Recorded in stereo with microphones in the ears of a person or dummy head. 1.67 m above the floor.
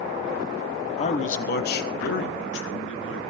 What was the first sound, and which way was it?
A man speaking, 35° left (ahead or behind).